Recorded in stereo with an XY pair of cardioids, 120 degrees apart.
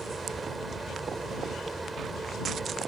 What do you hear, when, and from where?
0.0 s a fan: 25° right